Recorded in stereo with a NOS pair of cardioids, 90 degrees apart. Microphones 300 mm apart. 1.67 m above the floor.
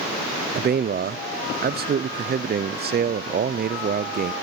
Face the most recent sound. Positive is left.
turn(degrees=-30)